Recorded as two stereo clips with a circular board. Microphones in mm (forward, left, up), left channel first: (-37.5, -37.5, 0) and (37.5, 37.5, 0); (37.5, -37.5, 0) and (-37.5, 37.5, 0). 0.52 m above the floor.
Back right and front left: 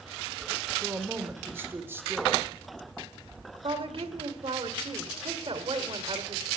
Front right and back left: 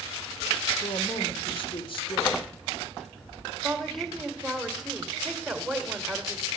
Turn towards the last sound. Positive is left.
turn(degrees=45)